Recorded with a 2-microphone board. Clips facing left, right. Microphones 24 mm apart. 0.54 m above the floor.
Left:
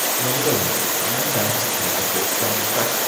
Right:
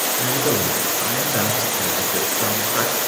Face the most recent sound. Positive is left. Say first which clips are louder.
# even
turn(degrees=-30)  # may be behind; listen again after turning